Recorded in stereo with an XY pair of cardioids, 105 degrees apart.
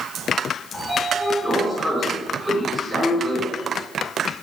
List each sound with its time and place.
0.7 s a sliding door: 5° right, 3.5 m